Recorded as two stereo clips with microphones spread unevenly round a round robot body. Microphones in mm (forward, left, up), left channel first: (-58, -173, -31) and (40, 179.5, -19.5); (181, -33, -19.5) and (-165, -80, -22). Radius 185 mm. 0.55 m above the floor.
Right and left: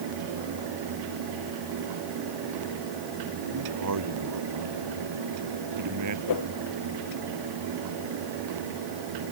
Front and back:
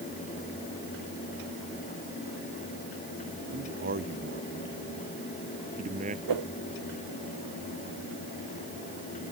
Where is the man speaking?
120° left; by 6.2 s 115° left.